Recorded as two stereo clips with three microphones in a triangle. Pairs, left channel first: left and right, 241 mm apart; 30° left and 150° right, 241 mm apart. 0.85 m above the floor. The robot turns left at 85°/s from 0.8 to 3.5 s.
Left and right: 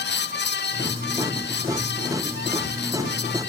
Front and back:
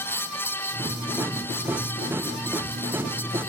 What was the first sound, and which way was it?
Only background noise.